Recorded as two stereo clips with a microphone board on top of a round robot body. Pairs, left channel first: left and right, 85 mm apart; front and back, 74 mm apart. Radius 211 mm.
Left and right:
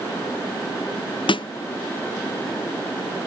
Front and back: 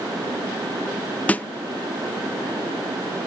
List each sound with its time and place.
1.3 s a snare drum: 70° left, 0.5 m